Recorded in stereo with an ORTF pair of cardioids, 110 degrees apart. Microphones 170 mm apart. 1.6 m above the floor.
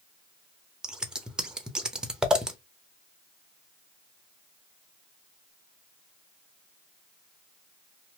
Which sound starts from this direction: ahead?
Scissors, at 0.8 s.